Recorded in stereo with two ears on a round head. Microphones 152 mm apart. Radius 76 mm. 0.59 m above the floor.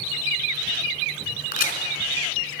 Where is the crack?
50° left (ahead or behind), 3 m.